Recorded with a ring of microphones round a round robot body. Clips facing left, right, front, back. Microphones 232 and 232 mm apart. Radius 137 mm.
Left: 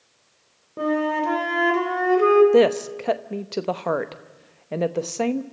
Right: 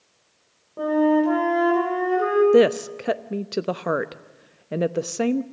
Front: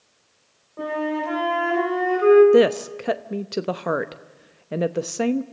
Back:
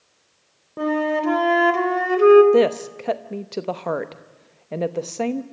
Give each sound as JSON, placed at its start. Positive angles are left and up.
{"t": 0.8, "sound": "a flute", "azimuth_deg": 155, "distance_m": 3.5}
{"t": 2.5, "sound": "a woman speaking", "azimuth_deg": -45, "distance_m": 0.9}